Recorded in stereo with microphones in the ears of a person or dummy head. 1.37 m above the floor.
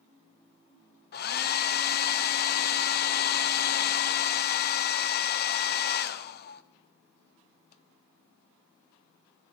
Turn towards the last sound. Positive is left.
turn(degrees=40)  # may be behind; listen again after turning